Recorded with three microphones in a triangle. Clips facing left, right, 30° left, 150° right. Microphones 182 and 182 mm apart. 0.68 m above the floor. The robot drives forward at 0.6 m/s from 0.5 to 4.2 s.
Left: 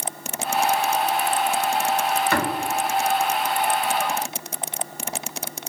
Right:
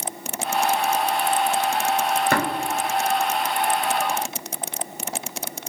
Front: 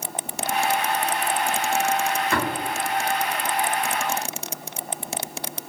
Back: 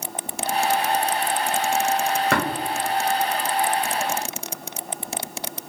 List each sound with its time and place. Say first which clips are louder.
2.3 s tapping: right 1 dB, back 2 dB; 135° right, 1.6 m